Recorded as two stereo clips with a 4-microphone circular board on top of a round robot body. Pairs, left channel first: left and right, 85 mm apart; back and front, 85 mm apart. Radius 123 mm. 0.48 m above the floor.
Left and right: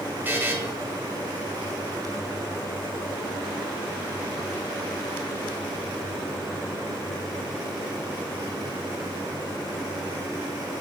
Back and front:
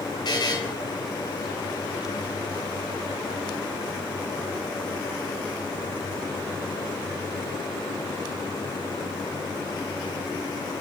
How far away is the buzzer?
About 2.5 m.